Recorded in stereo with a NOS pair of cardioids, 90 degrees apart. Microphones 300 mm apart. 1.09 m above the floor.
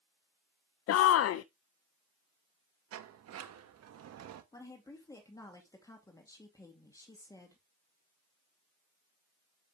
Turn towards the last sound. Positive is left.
turn(degrees=10)